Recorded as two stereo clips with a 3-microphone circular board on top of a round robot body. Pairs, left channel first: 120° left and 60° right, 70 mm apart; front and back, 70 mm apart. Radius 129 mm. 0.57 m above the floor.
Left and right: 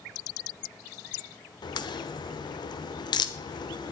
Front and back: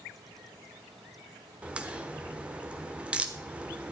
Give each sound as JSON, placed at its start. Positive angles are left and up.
{"t": 1.6, "sound": "a crack", "azimuth_deg": 105, "distance_m": 0.9}